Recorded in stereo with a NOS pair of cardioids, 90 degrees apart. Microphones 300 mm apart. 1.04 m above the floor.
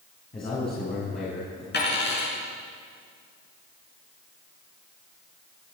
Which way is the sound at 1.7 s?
35° left.